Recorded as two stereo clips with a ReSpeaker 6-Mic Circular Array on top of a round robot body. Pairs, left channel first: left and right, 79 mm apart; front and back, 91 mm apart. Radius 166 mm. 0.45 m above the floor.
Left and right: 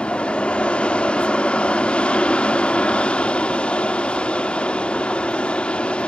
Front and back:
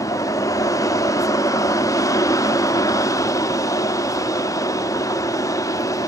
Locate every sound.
0.0 s an aircraft: 20° left